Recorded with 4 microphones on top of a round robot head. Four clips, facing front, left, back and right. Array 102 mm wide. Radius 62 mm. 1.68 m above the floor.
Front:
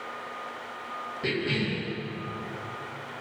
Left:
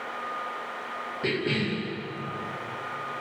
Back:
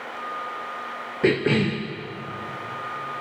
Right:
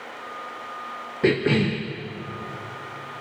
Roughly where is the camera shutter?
No camera shutter in this recording.